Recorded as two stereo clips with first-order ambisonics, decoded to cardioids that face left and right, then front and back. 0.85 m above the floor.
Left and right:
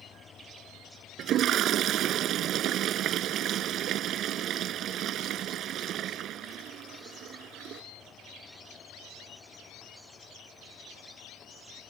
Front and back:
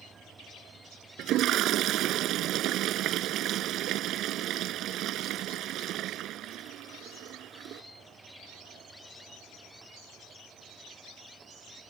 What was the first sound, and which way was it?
A toilet flushing, 140° right.